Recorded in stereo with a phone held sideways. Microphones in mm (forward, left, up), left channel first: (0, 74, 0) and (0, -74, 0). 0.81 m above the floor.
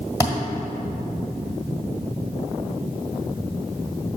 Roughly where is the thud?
Left.